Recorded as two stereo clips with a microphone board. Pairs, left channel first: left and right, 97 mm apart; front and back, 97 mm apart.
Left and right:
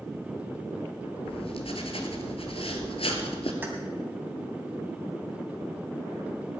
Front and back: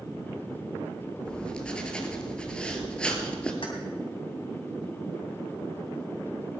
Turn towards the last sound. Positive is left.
turn(degrees=-25)